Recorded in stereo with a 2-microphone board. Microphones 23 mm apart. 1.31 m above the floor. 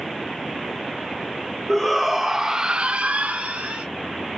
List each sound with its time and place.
1.7 s a shout: 5° left (ahead or behind), 1.0 m; by 3.9 s 75° right (ahead or behind), 0.7 m